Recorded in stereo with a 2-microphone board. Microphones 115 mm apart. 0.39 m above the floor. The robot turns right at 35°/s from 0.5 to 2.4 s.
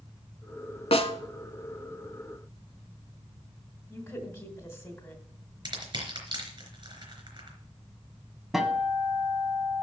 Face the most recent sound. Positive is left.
turn(degrees=-5)  # may be behind; listen again after turning